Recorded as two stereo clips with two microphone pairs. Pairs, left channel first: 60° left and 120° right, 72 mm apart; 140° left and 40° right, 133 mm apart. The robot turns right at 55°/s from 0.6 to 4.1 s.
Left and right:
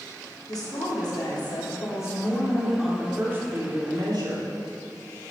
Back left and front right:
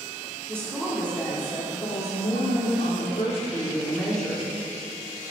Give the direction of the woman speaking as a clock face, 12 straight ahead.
11 o'clock.